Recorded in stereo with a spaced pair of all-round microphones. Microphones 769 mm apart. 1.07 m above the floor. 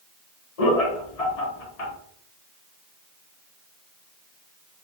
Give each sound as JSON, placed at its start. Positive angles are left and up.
{"t": 0.6, "sound": "laughter", "side_deg": 50, "distance_m": 0.8}